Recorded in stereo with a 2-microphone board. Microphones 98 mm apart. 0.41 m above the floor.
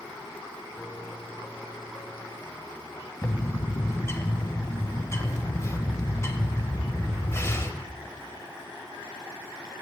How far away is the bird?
About 1.3 m.